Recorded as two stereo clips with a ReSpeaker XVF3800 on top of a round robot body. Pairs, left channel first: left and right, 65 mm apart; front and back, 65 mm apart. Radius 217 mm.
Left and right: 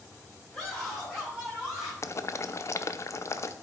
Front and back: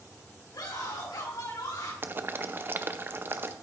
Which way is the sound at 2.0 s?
130° left.